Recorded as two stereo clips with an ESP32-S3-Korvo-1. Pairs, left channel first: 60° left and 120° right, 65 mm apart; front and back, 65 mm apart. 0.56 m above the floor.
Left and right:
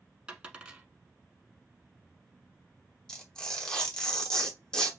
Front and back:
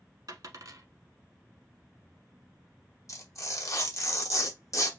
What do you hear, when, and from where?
0.3 s a dropped coin: 165° left, 1.1 m
3.1 s tearing paper: 15° right, 1.0 m